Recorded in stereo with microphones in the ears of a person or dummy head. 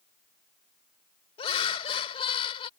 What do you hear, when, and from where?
1.4 s laughter: 35° left (ahead or behind)